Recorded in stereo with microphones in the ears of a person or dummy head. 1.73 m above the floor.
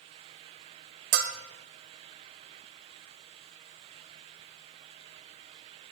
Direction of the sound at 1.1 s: 40° right (ahead or behind).